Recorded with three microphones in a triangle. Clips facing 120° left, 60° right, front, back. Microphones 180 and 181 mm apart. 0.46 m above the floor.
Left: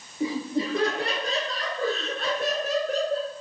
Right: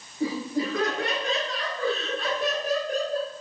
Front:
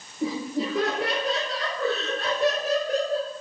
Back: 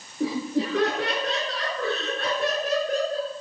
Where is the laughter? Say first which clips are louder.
Even, back 2 dB; 170° right, 5.5 m; by 3.3 s 135° left, 5.5 m.